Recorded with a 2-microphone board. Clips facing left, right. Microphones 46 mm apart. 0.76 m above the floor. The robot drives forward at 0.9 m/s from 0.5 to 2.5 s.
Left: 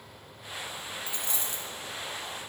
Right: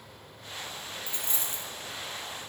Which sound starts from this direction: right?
A dropped coin, at 1.1 s.